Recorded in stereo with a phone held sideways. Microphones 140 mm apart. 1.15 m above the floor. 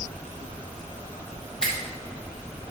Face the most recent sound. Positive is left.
turn(degrees=5)  # may be behind; listen again after turning